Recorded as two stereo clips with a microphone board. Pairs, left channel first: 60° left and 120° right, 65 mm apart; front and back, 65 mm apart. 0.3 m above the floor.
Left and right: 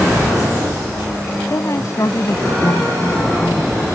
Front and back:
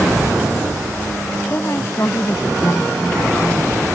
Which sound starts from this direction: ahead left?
A woman speaking, at 1.5 s.